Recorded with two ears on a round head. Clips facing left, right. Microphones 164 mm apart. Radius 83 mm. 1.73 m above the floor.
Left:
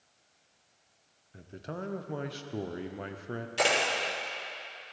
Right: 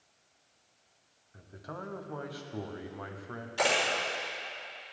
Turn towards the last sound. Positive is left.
turn(degrees=25)  # may be behind; listen again after turning